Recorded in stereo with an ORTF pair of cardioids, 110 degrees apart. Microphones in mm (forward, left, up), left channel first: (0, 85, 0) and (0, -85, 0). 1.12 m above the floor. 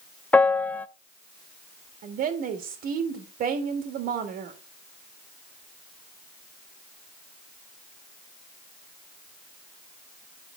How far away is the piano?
About 0.6 m.